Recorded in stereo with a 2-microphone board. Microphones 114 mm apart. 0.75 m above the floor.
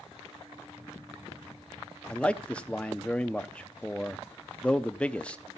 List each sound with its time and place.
2.1 s a man speaking: 10° left (ahead or behind), 0.8 m